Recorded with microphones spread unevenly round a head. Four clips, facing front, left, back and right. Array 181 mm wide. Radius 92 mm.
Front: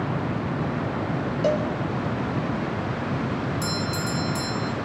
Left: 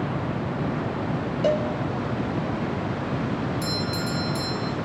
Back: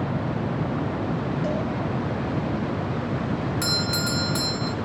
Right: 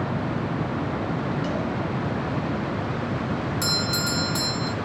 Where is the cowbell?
40° left, 4 m.